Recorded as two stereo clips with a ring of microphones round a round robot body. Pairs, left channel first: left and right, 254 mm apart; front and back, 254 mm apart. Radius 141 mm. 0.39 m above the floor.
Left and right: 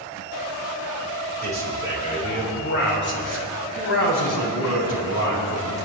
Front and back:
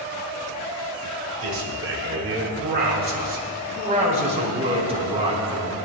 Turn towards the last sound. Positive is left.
turn(degrees=110)